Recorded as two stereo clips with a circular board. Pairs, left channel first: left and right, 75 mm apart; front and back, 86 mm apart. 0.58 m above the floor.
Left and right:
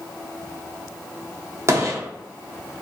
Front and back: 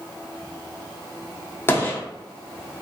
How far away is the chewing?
No chewing in this recording.